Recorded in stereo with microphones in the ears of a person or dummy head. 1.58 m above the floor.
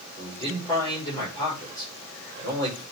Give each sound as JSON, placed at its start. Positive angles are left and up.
{"t": 0.2, "sound": "a man speaking", "side_deg": 20, "distance_m": 5.0}